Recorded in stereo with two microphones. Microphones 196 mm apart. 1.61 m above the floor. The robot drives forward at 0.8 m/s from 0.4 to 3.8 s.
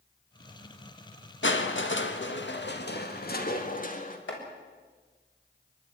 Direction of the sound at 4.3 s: 75° left (ahead or behind).